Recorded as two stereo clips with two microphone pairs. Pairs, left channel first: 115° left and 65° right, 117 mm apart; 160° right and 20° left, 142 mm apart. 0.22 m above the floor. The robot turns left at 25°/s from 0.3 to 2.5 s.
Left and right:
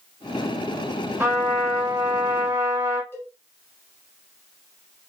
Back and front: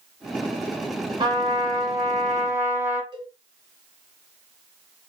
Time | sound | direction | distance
1.2 | a trumpet | 5° right | 1.3 m
3.1 | a cowbell | 55° left | 1.3 m